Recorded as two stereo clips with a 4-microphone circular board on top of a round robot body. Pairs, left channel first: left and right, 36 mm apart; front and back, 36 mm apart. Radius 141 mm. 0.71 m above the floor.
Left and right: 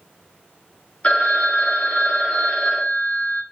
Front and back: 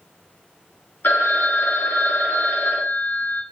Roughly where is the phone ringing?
Ahead left.